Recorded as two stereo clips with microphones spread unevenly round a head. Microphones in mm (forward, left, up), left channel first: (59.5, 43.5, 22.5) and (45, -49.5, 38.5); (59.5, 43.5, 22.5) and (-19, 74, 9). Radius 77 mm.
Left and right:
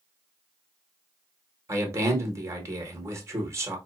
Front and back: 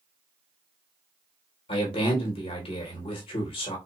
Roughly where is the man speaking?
Ahead right.